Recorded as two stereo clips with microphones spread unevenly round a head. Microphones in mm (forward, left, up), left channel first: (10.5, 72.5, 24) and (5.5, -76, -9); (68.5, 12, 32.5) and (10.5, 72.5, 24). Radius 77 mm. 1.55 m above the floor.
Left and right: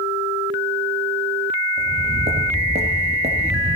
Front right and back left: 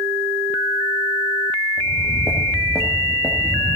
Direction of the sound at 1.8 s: 145° right.